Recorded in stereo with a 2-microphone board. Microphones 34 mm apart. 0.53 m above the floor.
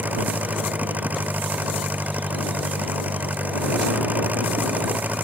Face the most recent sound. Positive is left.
turn(degrees=-55)  # may be behind; listen again after turning